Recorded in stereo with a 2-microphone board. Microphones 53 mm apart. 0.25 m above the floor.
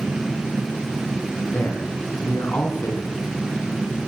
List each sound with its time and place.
1.5 s a man speaking: 50° left (ahead or behind), 2 m